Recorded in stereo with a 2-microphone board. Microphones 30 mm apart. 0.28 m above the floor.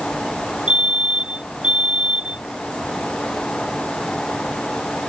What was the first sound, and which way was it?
A fire alarm, 30° right (ahead or behind).